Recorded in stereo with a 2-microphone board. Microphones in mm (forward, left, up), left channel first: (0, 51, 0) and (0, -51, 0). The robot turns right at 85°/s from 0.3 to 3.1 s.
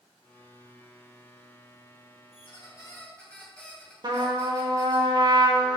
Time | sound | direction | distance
2.3 | a squeak | 105° left | 2.5 m
4.0 | a trumpet | 45° right (ahead or behind) | 1.0 m